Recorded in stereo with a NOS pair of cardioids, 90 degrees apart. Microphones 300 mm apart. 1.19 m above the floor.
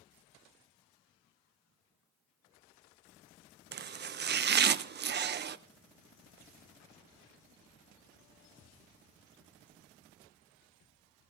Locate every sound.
3.7 s chopping: 35° right, 0.5 m